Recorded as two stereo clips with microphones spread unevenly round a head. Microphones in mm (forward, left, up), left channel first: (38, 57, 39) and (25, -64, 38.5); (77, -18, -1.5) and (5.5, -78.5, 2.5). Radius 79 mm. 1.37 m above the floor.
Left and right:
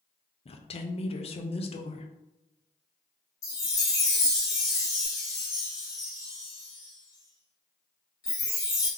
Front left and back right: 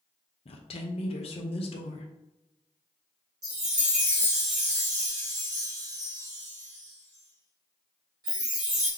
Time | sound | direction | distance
0.5 | a woman speaking | 50° left | 0.8 m
3.4 | a chime | 150° left | 1.3 m